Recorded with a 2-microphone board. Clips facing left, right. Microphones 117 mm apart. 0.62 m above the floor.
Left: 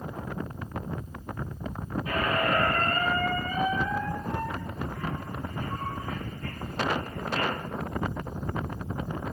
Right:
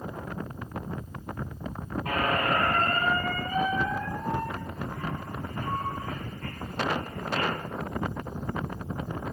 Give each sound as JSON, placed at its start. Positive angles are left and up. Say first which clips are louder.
{"t": 2.0, "sound": "a squeak", "louder": "even", "side_deg": -80, "distance_m": 4.0}